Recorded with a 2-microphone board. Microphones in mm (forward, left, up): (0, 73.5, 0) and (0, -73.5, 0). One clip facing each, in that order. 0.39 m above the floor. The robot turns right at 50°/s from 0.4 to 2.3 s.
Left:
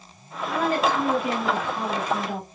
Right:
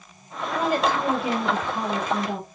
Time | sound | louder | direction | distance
0.5 | a woman speaking | even | 170° right | 1.8 m